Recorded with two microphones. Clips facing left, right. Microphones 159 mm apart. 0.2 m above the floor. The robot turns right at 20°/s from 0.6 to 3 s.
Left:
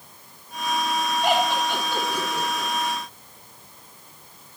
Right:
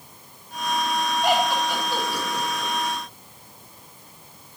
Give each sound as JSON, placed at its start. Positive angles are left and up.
{"t": 1.2, "sound": "laughter", "side_deg": 0, "distance_m": 1.6}